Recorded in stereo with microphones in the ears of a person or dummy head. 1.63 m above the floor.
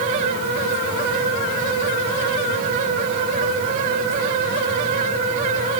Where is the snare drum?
I don't hear a snare drum.